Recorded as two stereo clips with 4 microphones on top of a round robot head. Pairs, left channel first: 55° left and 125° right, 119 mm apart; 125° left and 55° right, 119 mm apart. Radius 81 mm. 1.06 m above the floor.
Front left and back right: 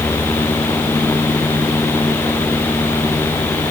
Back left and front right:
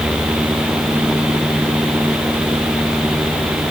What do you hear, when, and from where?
Only background noise.